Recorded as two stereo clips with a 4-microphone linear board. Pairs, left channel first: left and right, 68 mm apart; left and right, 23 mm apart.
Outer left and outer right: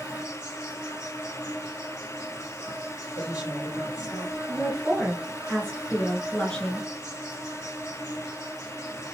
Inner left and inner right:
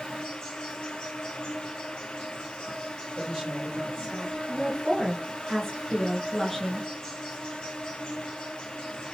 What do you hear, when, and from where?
0.0 s an insect: 50° left (ahead or behind), 3.5 m
3.1 s a woman speaking: 50° left (ahead or behind), 3.5 m
4.5 s a woman speaking: 15° left (ahead or behind), 1.7 m